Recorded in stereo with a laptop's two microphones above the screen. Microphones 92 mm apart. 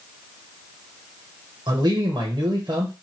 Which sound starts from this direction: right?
A man speaking, at 1.7 s.